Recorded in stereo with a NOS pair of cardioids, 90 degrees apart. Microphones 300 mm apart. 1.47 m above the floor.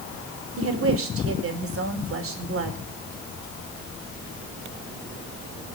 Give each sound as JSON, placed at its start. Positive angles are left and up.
{"t": 0.6, "sound": "a woman speaking", "azimuth_deg": -45, "distance_m": 4.5}